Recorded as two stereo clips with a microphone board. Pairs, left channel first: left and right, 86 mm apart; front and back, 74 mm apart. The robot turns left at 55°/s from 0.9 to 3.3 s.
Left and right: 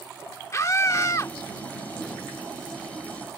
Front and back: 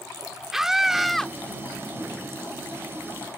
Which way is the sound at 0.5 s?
100° left.